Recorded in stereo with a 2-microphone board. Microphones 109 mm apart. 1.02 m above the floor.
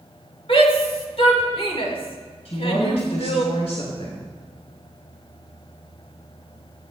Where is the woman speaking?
80° left, 4.5 m.